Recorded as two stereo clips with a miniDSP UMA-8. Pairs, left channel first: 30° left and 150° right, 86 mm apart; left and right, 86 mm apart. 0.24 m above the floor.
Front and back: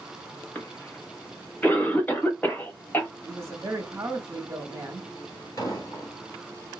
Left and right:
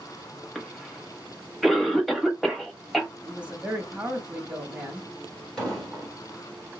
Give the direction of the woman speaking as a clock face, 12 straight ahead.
5 o'clock.